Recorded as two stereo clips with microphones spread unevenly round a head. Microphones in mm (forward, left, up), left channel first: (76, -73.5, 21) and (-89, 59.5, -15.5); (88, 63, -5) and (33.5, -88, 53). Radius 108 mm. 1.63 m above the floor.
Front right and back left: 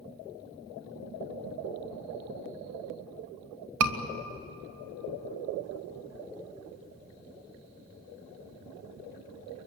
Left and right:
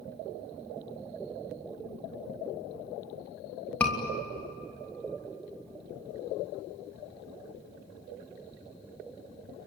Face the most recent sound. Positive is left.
turn(degrees=155)